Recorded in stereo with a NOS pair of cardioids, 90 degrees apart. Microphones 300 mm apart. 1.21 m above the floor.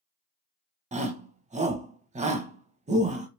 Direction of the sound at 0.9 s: 25° right.